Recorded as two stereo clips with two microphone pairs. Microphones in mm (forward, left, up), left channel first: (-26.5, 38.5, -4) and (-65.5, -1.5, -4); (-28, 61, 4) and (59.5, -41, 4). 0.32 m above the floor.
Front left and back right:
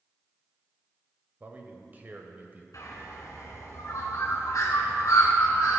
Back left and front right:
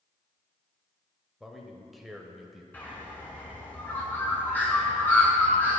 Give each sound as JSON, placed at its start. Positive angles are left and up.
{"t": 1.4, "sound": "a man speaking", "azimuth_deg": -135, "distance_m": 1.1}
{"t": 2.7, "sound": "a bird", "azimuth_deg": 55, "distance_m": 2.0}